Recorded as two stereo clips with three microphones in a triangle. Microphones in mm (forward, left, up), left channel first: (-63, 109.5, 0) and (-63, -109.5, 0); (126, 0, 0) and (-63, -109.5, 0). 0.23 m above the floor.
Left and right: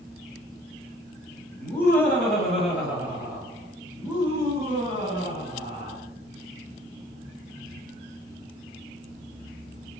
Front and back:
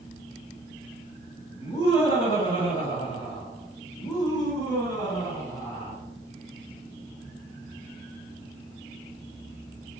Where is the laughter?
35° left, 1.6 m; by 6.0 s 45° right, 2.5 m.